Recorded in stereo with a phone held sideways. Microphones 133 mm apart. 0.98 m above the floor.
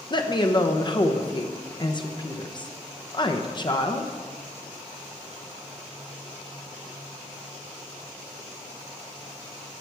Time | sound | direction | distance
0.1 | a woman speaking | 35° left (ahead or behind) | 0.8 m